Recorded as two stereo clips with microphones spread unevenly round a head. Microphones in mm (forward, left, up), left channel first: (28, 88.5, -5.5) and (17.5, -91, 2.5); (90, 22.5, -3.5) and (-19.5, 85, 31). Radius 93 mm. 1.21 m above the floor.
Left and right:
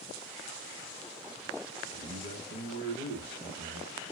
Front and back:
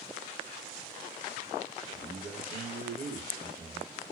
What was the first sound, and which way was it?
A man speaking, 125° right.